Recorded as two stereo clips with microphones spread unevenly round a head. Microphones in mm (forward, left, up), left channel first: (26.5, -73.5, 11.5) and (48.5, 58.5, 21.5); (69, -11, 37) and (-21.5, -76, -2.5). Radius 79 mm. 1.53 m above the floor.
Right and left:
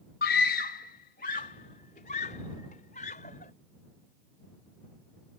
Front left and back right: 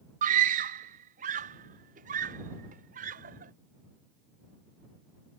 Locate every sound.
0.2 s a scream: 130° right; by 3.5 s 150° right